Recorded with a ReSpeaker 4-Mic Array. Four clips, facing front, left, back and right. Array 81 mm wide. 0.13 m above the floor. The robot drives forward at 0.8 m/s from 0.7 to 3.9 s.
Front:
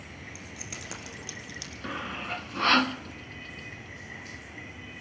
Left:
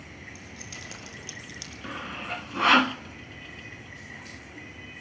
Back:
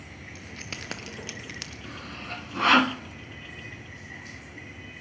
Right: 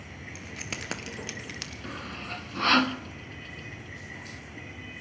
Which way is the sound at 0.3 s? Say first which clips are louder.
Right 4 dB, back 5 dB; 115° right.